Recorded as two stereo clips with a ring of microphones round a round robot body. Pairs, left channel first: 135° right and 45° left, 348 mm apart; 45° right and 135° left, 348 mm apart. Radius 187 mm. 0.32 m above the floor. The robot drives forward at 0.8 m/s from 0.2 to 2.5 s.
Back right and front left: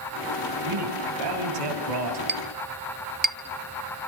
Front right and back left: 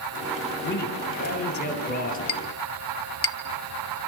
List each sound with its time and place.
0.6 s a man speaking: 20° left, 8 m; by 2.2 s 25° left, 7 m
2.3 s a clink: 10° right, 1.1 m